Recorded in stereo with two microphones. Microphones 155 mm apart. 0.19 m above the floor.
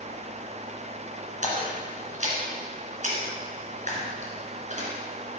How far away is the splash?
About 2.5 m.